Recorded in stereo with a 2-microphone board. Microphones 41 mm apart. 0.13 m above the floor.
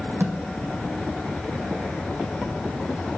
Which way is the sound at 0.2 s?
60° right (ahead or behind).